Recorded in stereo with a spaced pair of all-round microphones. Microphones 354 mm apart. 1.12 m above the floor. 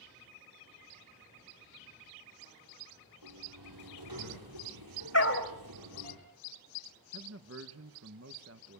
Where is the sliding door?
80° right, 6 m.